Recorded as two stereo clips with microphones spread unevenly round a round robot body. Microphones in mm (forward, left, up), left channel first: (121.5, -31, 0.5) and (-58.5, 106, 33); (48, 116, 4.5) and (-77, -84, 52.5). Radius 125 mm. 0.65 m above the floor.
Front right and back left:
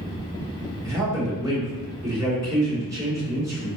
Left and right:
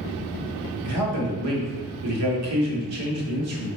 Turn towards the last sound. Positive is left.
turn(degrees=-135)